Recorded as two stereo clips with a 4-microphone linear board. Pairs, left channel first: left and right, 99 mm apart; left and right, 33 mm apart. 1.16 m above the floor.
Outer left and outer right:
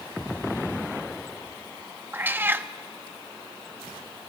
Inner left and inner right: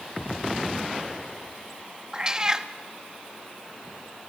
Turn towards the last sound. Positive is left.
turn(degrees=-20)  # may be behind; listen again after turning